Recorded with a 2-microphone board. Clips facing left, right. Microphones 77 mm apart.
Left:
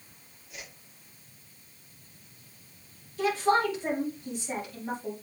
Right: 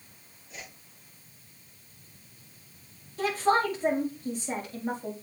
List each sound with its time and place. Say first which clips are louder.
0.5 s a whoosh: right 1 dB; 30° right (ahead or behind), 5 m
3.2 s a woman speaking: even; 40° right (ahead or behind), 4.5 m